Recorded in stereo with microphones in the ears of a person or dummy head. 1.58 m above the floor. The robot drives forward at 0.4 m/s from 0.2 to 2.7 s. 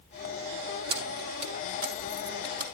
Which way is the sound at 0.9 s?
55° right (ahead or behind).